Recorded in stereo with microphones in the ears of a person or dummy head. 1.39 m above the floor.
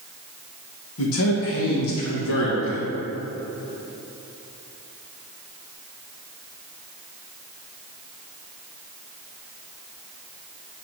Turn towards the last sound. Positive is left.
turn(degrees=75)  # may be behind; listen again after turning